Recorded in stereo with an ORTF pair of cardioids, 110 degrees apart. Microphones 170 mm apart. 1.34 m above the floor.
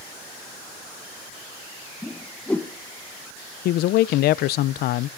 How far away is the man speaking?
About 0.6 m.